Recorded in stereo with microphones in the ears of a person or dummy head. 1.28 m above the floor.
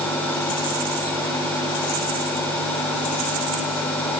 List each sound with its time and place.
Only background noise.